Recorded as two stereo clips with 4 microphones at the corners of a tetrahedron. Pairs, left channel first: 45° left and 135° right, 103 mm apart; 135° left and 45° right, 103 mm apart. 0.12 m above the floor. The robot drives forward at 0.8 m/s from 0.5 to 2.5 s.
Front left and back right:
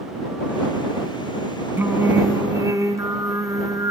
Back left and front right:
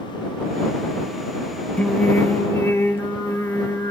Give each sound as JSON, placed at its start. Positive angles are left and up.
{"t": 1.8, "sound": "singing", "azimuth_deg": -170, "distance_m": 1.7}